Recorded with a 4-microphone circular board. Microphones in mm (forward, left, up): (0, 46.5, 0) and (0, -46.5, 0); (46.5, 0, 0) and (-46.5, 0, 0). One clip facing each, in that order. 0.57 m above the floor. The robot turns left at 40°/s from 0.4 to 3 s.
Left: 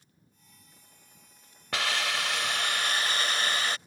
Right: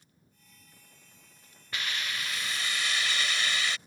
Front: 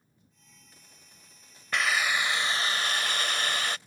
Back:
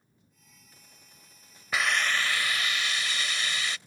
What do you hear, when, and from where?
1.7 s a hiss: 95° left; by 3.8 s 45° left